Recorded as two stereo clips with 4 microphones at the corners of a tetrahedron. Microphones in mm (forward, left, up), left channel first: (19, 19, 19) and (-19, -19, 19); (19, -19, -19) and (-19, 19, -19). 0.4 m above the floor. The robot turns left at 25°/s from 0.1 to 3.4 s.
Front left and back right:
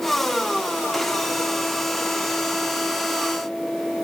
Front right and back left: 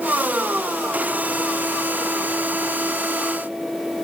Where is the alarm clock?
I don't hear an alarm clock.